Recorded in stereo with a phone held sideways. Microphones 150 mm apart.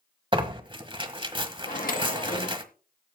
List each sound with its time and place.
0.3 s tearing paper: 35° right (ahead or behind), 1.3 m
1.7 s a microwave: 70° left (ahead or behind), 1.7 m